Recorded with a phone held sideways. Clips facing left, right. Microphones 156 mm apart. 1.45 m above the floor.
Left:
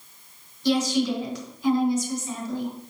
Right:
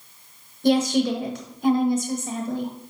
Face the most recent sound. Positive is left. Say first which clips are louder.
# right 3 dB
turn(degrees=-55)  # may be behind; listen again after turning